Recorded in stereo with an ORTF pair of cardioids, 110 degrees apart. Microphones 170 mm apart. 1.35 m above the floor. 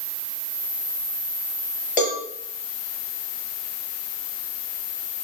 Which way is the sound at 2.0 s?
50° left.